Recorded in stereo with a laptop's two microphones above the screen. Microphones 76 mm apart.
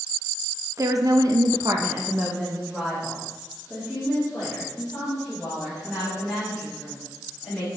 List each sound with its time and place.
0.8 s a woman speaking: 45° right (ahead or behind), 0.8 m; by 7.7 s 10° left (ahead or behind), 5 m